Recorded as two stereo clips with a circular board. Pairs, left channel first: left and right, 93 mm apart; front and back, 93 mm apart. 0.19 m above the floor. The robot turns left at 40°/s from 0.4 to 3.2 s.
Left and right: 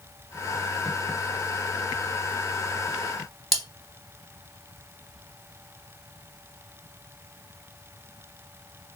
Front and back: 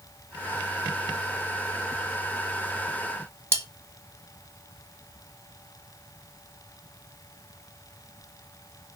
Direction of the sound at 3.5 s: Straight behind.